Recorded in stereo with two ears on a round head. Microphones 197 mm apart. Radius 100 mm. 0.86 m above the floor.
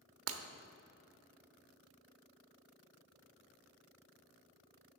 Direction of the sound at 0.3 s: 70° right (ahead or behind).